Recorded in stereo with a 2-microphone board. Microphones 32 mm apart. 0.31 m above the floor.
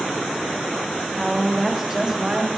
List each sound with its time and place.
1.1 s a woman speaking: 15° left (ahead or behind), 0.9 m; by 2.5 s 35° right (ahead or behind), 1.0 m